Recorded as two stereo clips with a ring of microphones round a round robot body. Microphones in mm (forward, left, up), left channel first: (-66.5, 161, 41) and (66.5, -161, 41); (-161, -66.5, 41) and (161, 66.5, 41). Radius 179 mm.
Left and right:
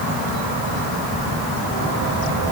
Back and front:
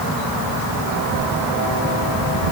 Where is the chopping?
I don't hear chopping.